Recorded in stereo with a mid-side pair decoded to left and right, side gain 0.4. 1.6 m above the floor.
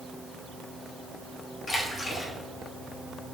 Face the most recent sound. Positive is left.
turn(degrees=40)